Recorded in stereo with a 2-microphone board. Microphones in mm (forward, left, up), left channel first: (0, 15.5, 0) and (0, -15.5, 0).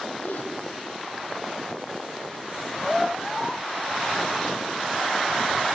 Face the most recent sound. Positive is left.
turn(degrees=80)